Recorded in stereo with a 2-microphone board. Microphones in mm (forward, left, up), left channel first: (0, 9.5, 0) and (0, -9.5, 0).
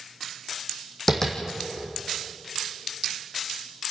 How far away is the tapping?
About 2.5 m.